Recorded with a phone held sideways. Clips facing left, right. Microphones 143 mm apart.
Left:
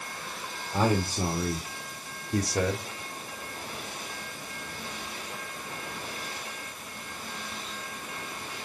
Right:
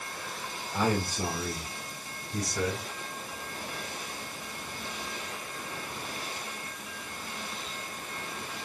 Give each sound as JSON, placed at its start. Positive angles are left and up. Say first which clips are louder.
{"t": 0.7, "sound": "a man speaking", "louder": "left 3 dB", "side_deg": 30, "distance_m": 2.5}